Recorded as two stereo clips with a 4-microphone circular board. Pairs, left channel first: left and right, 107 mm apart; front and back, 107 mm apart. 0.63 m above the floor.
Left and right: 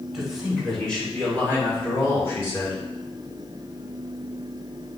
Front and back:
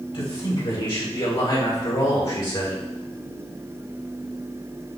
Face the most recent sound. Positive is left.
turn(degrees=30)